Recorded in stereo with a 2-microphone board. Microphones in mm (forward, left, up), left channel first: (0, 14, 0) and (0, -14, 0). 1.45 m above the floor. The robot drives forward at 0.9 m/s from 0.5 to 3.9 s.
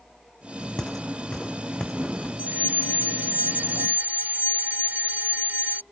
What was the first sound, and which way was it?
Footsteps, 25° left (ahead or behind).